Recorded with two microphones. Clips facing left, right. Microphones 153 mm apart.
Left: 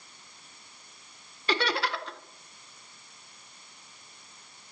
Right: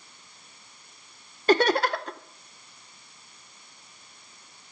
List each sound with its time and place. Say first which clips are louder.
1.5 s laughter: right 8 dB; 45° right (ahead or behind), 0.6 m